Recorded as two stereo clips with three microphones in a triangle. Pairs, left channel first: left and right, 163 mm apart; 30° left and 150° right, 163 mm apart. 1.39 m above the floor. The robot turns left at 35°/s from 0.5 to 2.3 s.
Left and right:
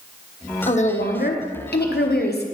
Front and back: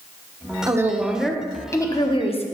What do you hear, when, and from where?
0.7 s a woman speaking: 140° left, 1.1 m; by 2.5 s 80° left, 1.1 m